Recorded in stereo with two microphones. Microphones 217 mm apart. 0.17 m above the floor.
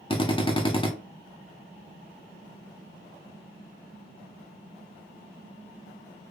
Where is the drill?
25° left (ahead or behind), 0.8 m.